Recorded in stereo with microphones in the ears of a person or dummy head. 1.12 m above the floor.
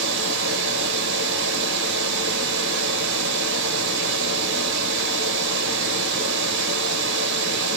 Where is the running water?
65° right (ahead or behind), 0.8 m.